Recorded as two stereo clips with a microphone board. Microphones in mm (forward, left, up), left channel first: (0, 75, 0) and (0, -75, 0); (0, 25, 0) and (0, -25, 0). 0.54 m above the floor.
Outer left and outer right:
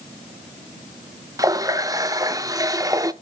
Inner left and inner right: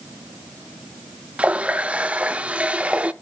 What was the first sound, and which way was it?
A running tap, 25° right (ahead or behind).